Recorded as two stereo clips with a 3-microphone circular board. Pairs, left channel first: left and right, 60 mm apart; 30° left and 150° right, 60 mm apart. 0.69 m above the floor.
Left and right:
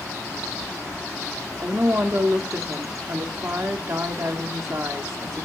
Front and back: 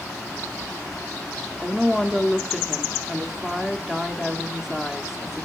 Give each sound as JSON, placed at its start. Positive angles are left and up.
{"t": 1.6, "sound": "a woman speaking", "azimuth_deg": -70, "distance_m": 1.1}